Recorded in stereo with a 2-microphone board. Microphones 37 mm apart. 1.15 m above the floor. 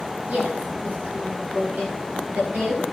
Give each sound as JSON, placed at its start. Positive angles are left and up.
{"t": 0.3, "sound": "a woman speaking", "side_deg": -45, "distance_m": 7.5}